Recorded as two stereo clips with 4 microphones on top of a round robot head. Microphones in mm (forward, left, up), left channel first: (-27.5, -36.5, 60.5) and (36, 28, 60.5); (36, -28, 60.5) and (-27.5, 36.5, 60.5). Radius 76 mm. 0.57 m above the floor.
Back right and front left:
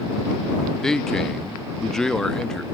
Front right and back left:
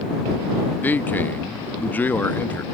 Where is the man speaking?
60° right.